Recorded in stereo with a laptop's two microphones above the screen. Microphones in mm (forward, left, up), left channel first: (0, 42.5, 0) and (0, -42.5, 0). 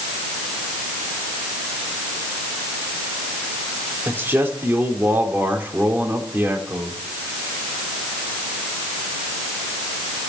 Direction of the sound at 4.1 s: 25° right (ahead or behind).